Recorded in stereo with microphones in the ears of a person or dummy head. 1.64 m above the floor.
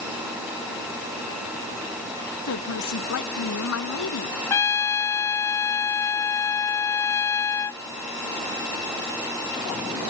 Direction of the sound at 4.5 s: 10° left (ahead or behind).